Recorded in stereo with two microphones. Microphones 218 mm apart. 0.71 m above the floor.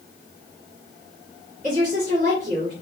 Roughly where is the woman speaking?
Right.